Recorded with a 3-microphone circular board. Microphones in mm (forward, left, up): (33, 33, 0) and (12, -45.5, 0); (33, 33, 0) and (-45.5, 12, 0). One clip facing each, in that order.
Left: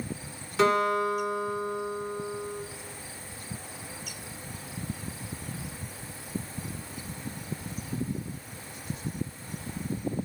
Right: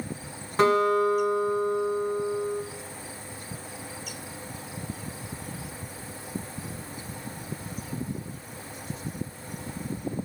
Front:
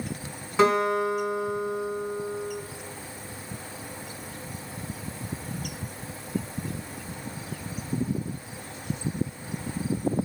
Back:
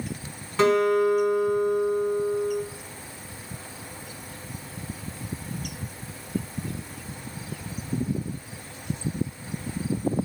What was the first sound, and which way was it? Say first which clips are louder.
A guitar: right 3 dB, back 2 dB; 60° right.